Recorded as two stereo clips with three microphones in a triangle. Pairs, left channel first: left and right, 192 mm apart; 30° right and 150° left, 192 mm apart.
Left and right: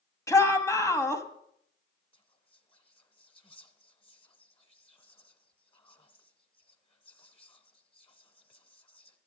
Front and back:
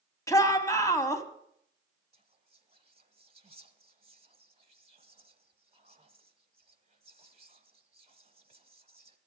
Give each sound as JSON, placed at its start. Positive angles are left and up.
{"t": 0.3, "sound": "a shout", "azimuth_deg": 30, "distance_m": 1.3}
{"t": 2.1, "sound": "whispering", "azimuth_deg": 125, "distance_m": 1.3}